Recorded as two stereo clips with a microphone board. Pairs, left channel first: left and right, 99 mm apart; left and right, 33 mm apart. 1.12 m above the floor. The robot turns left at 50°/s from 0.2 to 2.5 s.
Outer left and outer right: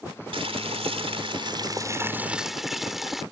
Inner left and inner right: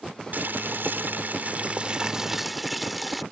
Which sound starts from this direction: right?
Boiling, at 0.3 s.